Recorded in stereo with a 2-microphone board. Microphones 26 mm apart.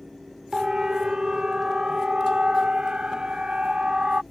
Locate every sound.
0.5 s a siren: 25° right (ahead or behind); by 4.2 s 35° right (ahead or behind)